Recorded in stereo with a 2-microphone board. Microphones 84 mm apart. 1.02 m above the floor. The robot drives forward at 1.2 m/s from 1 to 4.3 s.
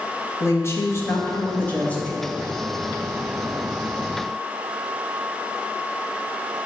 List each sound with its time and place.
0.4 s a woman speaking: 35° left (ahead or behind), 1.5 m; by 2.2 s 15° left (ahead or behind), 3 m